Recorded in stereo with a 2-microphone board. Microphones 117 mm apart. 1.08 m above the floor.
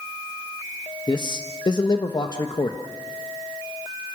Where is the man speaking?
40° left (ahead or behind), 1.3 m.